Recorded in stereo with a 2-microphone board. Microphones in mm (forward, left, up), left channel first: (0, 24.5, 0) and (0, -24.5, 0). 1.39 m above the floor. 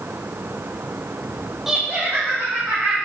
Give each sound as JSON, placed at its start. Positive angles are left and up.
{"t": 1.7, "sound": "laughter", "side_deg": -5, "distance_m": 0.5}